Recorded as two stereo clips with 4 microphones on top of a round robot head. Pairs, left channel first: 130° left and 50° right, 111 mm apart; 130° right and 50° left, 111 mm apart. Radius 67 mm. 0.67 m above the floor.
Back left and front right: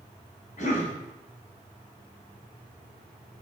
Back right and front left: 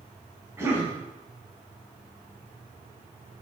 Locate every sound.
0.6 s a cough: 120° left, 4 m